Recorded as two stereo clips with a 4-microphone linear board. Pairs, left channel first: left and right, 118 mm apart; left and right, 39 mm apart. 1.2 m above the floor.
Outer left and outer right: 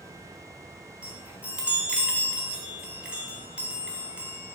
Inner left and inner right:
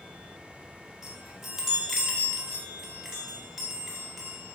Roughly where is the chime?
Centre.